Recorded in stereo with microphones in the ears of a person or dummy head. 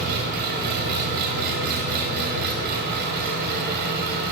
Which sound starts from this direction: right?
An engine running, at 0.0 s.